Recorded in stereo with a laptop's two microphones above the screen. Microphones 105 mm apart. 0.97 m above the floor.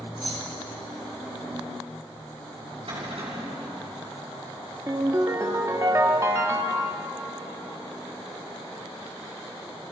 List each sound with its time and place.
0.2 s keys jangling: 70° left (ahead or behind), 5.5 m
2.9 s a cupboard door: 60° right (ahead or behind), 6 m
4.9 s a ringtone: 30° right (ahead or behind), 1.2 m